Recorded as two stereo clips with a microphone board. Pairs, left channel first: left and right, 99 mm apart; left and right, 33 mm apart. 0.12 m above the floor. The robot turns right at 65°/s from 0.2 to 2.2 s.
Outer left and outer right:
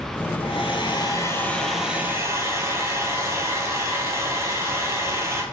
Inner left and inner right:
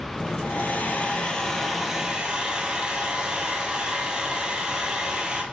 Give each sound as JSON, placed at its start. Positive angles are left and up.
{"t": 0.4, "sound": "a hair dryer", "azimuth_deg": 95, "distance_m": 0.7}